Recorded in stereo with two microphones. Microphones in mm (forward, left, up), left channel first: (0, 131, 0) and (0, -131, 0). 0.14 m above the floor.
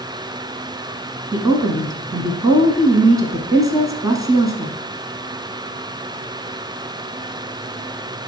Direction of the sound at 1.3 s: 15° right (ahead or behind).